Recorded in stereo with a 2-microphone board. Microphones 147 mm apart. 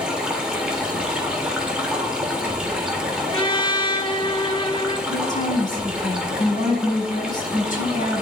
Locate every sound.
0.0 s running water: 5° right (ahead or behind), 2.5 m
3.3 s a trumpet: 35° left (ahead or behind), 1.2 m
5.1 s a woman speaking: 60° left (ahead or behind), 6 m